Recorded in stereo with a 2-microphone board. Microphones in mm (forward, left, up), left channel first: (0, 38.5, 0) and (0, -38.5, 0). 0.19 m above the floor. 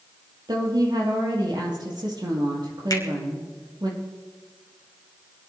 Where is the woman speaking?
70° right (ahead or behind), 4.5 m.